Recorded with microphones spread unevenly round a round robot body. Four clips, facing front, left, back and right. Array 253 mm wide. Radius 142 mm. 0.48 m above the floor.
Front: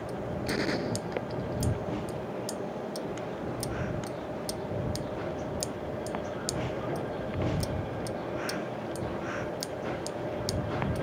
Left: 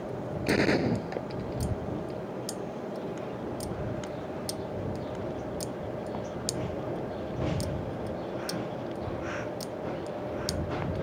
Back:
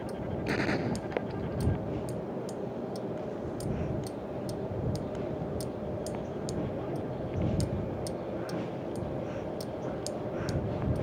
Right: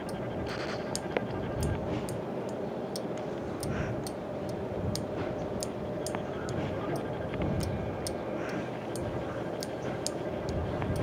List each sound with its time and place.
0.5 s a gunshot: 105° left